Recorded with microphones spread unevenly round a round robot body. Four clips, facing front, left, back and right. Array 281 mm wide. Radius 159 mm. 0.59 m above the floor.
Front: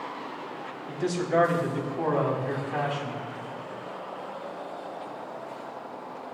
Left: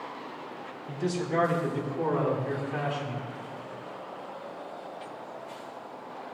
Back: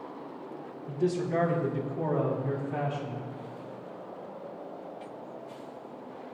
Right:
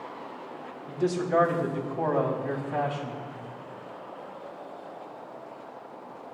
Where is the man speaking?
130° right, 3 m; by 3.2 s 135° right, 4.5 m.